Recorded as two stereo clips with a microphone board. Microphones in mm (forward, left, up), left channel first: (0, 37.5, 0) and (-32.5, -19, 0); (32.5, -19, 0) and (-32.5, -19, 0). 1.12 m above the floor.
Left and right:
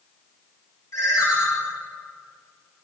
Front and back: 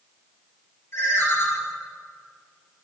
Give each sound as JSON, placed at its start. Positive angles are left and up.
{"t": 0.9, "sound": "a ringtone", "azimuth_deg": 40, "distance_m": 2.5}